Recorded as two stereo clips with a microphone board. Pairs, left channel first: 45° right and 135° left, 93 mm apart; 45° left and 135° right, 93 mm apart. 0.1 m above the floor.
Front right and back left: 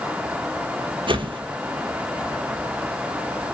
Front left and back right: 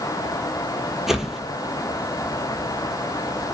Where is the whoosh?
140° left, 0.9 m.